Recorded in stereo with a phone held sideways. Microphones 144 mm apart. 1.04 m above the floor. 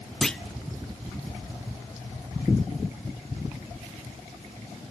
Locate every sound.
0.2 s a clunk: 5° left (ahead or behind), 0.6 m